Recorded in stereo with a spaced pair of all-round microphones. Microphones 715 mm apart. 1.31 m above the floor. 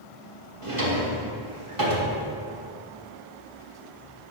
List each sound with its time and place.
0.6 s a drawer: 45° right (ahead or behind), 1.4 m